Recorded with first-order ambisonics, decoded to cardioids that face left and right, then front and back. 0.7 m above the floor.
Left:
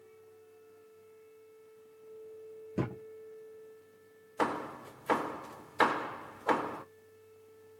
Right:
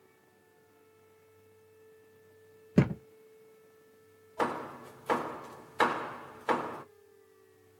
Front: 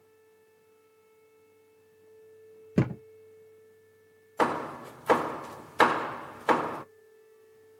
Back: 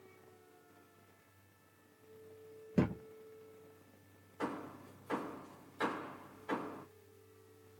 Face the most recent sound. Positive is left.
turn(degrees=0)